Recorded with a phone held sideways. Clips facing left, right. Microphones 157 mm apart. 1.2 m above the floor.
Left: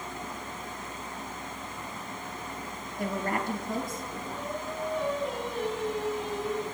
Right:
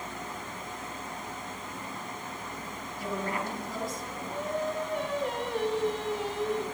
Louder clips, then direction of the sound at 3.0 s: Left 2 dB; 50° left (ahead or behind).